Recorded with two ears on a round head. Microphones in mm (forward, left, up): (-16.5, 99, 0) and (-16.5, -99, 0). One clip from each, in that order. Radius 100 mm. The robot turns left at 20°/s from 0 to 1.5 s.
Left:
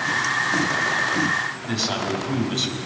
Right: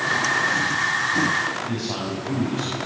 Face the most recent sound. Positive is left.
turn(degrees=75)  # may be behind; listen again after turning